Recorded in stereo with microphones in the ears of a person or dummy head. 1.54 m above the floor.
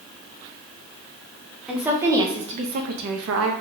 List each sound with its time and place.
1.7 s a woman speaking: 5° right (ahead or behind), 0.8 m; by 3.5 s 85° right, 0.7 m